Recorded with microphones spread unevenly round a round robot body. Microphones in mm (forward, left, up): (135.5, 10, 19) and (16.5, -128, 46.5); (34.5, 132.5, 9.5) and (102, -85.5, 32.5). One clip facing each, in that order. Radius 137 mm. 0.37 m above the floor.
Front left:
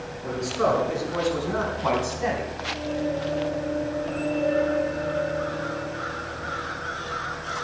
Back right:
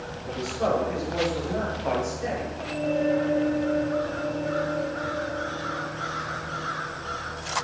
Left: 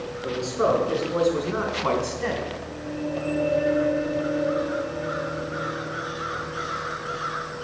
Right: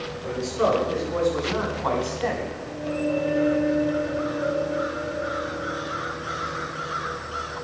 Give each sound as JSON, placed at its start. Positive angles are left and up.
{"t": 0.2, "sound": "a man speaking", "azimuth_deg": 40, "distance_m": 5.0}